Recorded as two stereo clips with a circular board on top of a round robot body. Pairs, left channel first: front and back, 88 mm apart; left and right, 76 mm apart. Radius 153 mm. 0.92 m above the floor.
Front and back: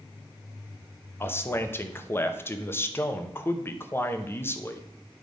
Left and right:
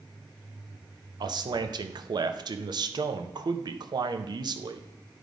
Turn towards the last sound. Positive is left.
turn(degrees=-65)